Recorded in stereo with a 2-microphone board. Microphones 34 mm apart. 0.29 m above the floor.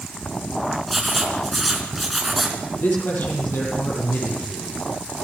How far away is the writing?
About 4 m.